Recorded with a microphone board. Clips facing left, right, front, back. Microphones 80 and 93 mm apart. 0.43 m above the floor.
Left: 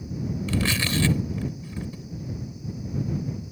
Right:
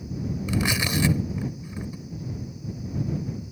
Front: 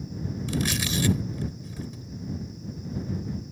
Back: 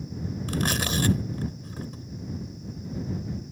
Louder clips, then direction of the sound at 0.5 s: Even, back 1 dB; 160° right.